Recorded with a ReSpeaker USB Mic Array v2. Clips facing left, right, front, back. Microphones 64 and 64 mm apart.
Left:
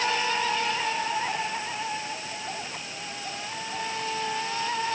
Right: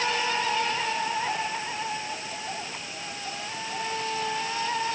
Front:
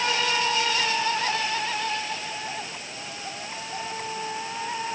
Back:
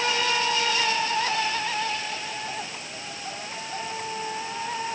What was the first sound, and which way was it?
Only background noise.